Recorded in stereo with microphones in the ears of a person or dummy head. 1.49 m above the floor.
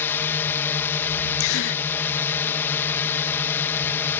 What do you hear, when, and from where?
0.0 s a drone: 15° left (ahead or behind)
1.4 s a gasp: 65° left (ahead or behind)